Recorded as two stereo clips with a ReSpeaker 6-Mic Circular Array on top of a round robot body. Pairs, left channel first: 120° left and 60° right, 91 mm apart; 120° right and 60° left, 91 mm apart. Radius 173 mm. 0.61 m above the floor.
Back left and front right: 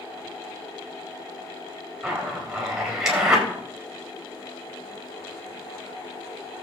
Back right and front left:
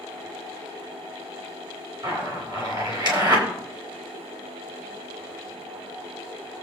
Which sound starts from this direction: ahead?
A zipper, at 2.0 s.